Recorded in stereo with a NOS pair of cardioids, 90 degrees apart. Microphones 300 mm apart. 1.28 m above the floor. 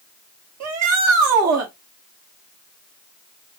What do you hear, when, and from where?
0.6 s a shout: 65° right, 2 m